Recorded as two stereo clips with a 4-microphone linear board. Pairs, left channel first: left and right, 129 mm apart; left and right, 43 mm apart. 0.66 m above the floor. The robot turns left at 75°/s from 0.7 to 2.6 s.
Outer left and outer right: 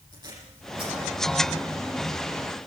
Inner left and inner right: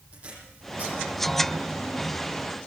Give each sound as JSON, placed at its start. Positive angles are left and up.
{"t": 0.1, "sound": "tape being pulled", "side_deg": -30, "distance_m": 9.0}